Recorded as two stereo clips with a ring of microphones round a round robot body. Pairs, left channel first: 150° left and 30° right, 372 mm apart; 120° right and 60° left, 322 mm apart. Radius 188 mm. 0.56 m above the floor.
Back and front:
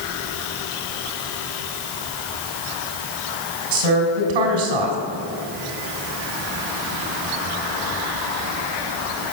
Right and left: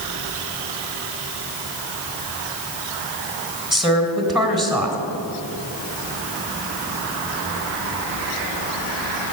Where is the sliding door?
No sliding door in this recording.